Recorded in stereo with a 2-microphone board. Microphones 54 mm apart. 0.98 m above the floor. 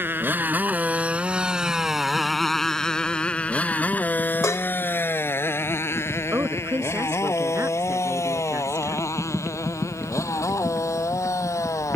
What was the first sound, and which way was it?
A motorcycle, 40° right (ahead or behind).